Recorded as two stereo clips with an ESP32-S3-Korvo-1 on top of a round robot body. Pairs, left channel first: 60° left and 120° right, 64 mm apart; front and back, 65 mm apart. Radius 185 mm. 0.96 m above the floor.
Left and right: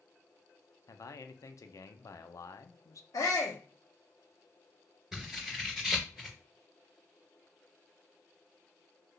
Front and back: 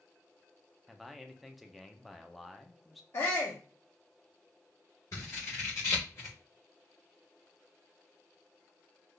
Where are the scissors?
35° right, 0.8 m.